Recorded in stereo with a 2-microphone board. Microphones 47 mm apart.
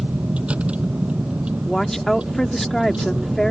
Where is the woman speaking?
5° left (ahead or behind).